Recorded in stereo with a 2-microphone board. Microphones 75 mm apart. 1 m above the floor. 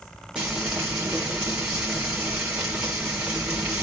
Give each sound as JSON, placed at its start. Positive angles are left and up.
{"t": 0.3, "sound": "frying", "side_deg": -15, "distance_m": 3.0}